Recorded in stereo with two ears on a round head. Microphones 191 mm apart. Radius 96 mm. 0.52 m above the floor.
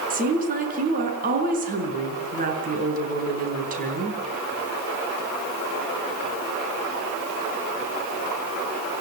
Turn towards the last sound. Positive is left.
turn(degrees=-40)  # may be behind; listen again after turning